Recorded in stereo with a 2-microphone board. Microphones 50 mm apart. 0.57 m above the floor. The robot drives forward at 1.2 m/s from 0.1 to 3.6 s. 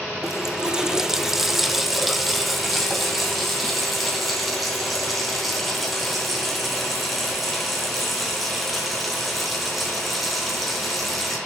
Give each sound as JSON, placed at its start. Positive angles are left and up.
{"t": 0.2, "sound": "a running tap", "side_deg": -10, "distance_m": 0.7}